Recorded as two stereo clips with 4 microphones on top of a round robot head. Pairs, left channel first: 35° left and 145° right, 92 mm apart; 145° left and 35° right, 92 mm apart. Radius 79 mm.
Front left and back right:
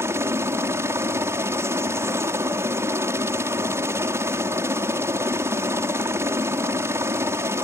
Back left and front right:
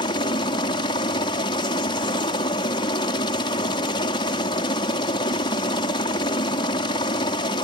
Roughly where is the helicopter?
Behind.